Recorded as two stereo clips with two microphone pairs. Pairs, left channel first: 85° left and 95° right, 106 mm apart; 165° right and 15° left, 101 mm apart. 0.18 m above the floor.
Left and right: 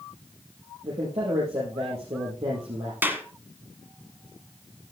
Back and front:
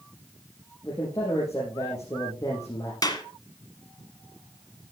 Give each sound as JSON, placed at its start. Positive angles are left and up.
{"t": 0.8, "sound": "a man speaking", "azimuth_deg": -105, "distance_m": 4.0}
{"t": 3.0, "sound": "a clap", "azimuth_deg": -155, "distance_m": 1.6}